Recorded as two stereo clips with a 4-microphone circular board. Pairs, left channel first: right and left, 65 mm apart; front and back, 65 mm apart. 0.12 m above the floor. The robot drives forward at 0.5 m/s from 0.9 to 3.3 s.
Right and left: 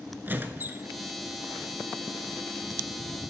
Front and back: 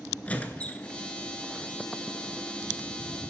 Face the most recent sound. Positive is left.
turn(degrees=155)